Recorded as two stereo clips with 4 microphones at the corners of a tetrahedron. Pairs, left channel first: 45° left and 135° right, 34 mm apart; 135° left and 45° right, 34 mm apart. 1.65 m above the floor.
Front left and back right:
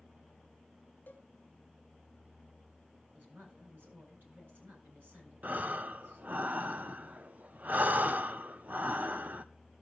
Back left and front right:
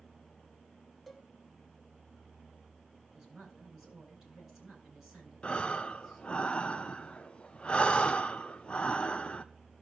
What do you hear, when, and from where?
1.1 s a cowbell: 50° left, 1.0 m
3.1 s a woman speaking: 120° right, 9 m
5.4 s breathing: 170° right, 0.7 m